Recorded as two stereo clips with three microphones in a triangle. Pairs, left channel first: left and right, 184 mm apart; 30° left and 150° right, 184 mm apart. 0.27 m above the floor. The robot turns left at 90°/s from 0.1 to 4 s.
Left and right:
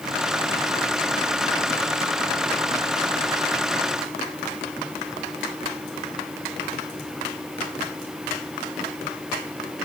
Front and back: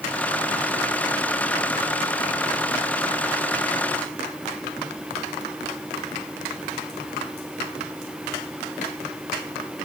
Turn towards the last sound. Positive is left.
No sound to turn to.